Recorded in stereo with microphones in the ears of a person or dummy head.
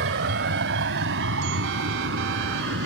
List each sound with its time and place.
0.0 s a vehicle: 70° right (ahead or behind)